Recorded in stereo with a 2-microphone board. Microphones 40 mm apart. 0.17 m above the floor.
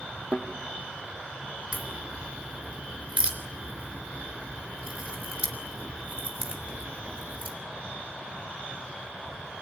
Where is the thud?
50° right (ahead or behind), 3 m.